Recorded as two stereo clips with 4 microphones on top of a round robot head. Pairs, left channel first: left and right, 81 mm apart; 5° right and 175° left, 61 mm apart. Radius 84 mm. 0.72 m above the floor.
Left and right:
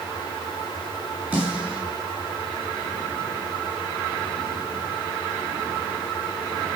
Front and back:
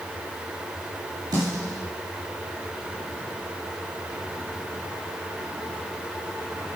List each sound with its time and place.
1.3 s a snare drum: 160° right, 5 m